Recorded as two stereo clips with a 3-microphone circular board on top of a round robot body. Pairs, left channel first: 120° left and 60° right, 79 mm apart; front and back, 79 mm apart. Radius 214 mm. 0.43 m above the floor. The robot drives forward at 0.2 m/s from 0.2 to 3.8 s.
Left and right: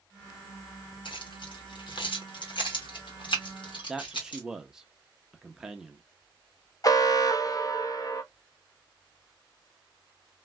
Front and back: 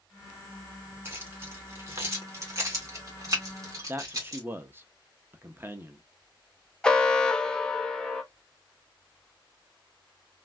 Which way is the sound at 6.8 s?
80° left.